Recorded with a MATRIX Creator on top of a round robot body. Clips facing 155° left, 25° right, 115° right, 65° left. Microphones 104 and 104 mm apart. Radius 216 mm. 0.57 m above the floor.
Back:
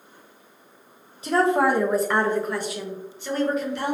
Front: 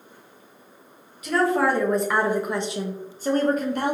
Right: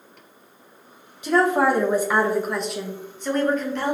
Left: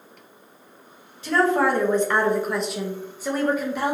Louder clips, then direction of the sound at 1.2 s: Back 1 dB, right 1 dB; 175° right.